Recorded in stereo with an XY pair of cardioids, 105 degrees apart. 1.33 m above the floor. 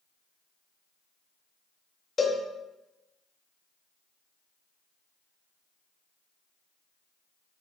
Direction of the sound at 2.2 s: 30° left.